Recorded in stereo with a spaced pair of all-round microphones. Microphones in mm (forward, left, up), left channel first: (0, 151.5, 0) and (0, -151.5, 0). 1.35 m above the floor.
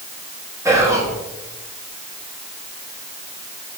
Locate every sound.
0.7 s whispering: 10° right (ahead or behind), 0.9 m